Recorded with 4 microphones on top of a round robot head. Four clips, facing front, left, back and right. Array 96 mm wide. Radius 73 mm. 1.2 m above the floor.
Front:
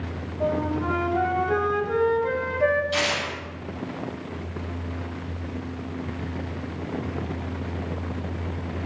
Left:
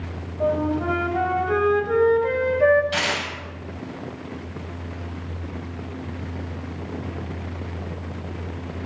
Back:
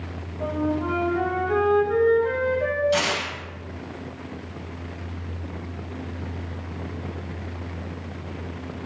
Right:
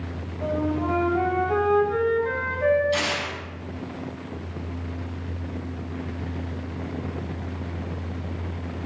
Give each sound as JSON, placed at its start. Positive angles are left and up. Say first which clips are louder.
{"t": 0.4, "sound": "a flute", "louder": "left 3 dB, even", "azimuth_deg": 75, "distance_m": 4.0}
{"t": 2.9, "sound": "tearing paper", "louder": "left 1 dB, back 2 dB", "azimuth_deg": 105, "distance_m": 8.5}